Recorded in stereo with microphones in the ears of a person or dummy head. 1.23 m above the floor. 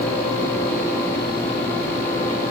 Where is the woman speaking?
No woman speaking in this recording.